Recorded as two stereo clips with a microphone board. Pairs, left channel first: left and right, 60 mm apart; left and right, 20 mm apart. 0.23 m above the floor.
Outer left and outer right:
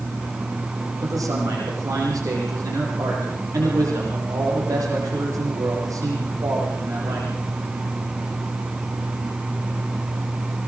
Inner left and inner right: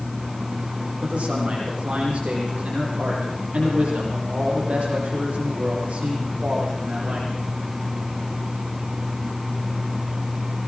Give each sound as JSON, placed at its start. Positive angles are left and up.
{"t": 1.0, "sound": "a man speaking", "side_deg": -75, "distance_m": 9.5}